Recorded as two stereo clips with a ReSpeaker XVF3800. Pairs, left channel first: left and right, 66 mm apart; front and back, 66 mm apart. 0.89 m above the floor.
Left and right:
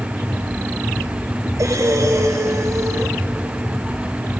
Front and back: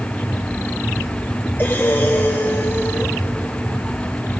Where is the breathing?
55° right, 3 m.